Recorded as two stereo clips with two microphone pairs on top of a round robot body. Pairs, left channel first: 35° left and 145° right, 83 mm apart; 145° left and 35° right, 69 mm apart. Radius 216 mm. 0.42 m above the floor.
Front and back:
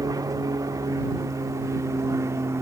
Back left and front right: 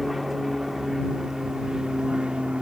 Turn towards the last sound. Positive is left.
turn(degrees=-110)